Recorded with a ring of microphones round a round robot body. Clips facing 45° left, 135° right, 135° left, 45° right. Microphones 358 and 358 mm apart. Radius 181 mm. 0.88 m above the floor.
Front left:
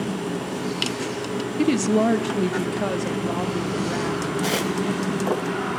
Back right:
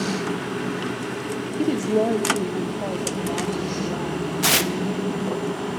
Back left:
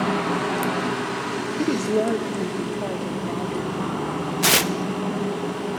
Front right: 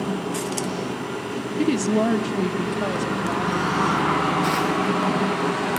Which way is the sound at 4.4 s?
165° left.